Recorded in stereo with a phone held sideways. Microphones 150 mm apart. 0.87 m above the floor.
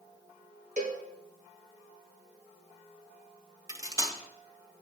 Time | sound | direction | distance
0.8 | a cowbell | 55° right (ahead or behind) | 1.0 m
3.7 | cutlery clinking | 25° right (ahead or behind) | 0.6 m